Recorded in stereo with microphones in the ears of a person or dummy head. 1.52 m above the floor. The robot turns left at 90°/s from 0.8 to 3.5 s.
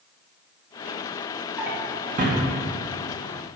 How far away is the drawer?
About 0.9 m.